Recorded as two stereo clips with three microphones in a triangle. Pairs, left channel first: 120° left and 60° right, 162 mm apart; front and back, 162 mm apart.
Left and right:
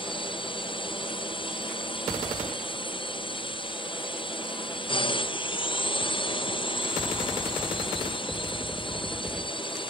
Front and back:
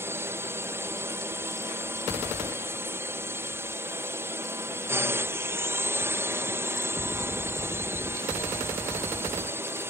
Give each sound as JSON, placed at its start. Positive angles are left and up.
{"t": 0.0, "sound": "a drone", "azimuth_deg": 120}